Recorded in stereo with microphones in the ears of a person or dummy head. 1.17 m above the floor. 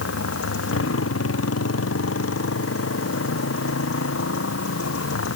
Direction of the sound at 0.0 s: 90° left.